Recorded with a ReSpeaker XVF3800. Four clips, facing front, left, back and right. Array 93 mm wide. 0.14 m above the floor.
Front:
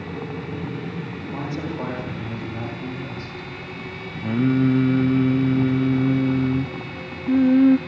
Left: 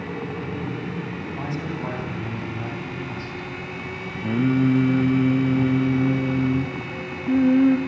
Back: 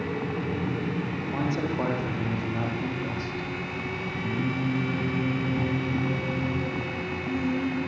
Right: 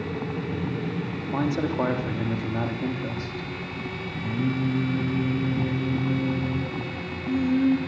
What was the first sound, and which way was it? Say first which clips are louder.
A man speaking: right 7 dB, back 1 dB; 100° right.